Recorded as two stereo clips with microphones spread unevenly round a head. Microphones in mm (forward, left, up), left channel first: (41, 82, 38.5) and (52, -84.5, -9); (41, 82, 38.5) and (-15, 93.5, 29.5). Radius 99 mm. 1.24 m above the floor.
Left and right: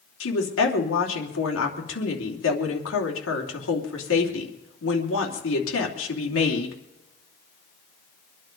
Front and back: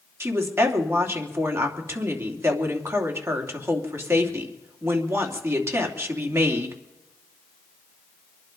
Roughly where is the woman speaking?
Behind left.